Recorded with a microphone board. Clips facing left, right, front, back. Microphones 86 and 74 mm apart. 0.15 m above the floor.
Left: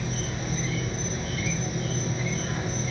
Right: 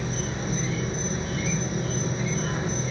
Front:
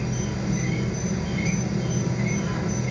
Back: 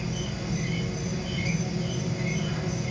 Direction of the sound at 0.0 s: 35° right.